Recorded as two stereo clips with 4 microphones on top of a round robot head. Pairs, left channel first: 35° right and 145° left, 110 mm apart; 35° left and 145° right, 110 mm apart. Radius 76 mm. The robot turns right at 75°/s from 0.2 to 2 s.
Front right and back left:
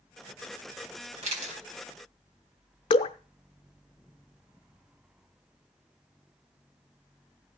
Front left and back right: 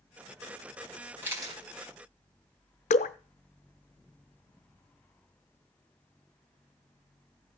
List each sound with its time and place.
1.2 s a camera shutter: 140° left, 3.5 m; by 1.6 s 170° left, 3.5 m
2.9 s dripping: 10° left, 0.5 m